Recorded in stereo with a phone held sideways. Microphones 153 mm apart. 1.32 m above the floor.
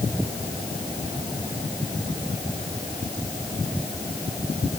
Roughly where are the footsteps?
I don't hear footsteps.